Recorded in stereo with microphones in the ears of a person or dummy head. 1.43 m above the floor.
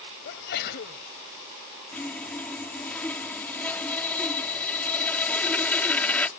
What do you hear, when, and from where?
0.2 s a sneeze: 55° left (ahead or behind)
1.9 s sawing: 10° left (ahead or behind)